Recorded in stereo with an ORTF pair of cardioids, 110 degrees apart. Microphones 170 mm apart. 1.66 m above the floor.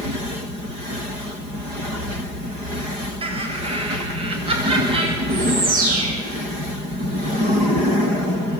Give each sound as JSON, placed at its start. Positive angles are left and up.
{"t": 3.2, "sound": "laughter", "azimuth_deg": -35, "distance_m": 8.0}
{"t": 5.3, "sound": "a bird", "azimuth_deg": -60, "distance_m": 9.5}